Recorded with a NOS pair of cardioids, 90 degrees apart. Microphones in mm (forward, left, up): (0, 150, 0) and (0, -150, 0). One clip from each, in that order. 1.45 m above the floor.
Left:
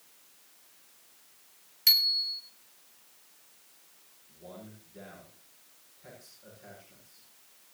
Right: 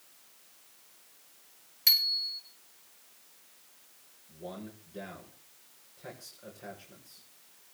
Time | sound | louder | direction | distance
1.9 | a bicycle bell | left 2 dB | straight ahead | 3.5 m
4.3 | a man speaking | right 4 dB | 55° right | 7.5 m